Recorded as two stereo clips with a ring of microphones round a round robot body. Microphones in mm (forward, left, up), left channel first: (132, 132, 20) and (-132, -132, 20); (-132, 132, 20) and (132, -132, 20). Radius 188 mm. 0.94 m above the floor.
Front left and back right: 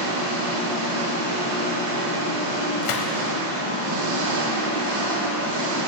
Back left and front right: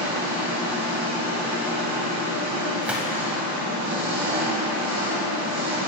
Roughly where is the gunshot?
Ahead left.